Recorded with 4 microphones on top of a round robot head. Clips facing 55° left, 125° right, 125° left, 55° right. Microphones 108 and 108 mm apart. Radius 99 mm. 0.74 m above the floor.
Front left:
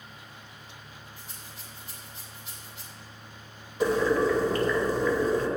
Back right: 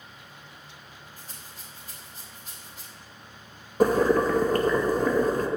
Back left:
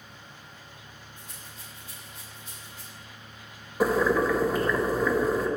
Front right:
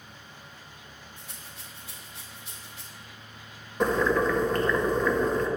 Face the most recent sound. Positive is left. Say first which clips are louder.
# back right 3 dB, back left 1 dB
turn(degrees=-150)